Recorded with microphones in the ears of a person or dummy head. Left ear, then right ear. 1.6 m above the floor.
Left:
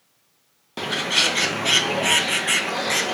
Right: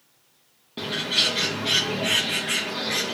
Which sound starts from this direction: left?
A bird, at 0.8 s.